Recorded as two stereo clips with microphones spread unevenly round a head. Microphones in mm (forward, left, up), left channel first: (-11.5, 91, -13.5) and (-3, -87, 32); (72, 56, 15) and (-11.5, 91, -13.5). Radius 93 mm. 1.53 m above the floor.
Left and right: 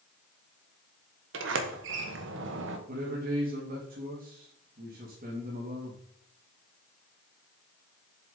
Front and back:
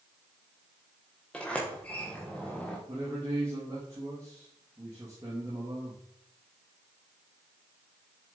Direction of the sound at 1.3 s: 105° right.